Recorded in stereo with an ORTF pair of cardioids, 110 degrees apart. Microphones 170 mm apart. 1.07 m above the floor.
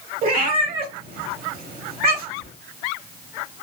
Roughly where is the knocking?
No knocking in this recording.